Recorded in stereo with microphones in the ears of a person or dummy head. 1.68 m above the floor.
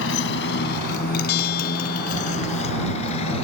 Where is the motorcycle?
70° left (ahead or behind); by 3.5 s 30° left (ahead or behind).